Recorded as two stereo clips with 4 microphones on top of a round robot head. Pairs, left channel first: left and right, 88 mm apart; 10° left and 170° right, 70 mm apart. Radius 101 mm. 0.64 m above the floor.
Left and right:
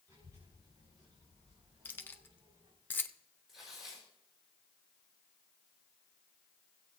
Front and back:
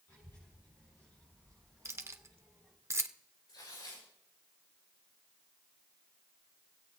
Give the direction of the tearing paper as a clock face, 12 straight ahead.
12 o'clock.